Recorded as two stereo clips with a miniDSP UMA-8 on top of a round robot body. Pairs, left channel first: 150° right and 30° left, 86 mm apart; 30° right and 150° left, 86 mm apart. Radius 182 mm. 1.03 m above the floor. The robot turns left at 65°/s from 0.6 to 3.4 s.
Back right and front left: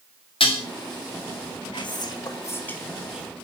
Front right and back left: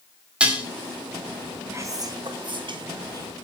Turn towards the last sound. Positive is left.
turn(degrees=95)